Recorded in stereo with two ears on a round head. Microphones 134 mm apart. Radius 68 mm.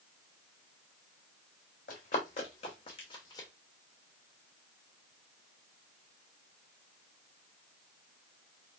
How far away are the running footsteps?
About 1.6 m.